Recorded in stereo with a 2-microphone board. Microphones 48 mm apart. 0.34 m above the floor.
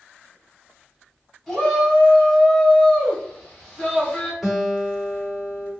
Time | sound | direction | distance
1.5 | a shout | centre (ahead or behind) | 1.9 m
4.4 | a guitar | 5° right (ahead or behind) | 1.1 m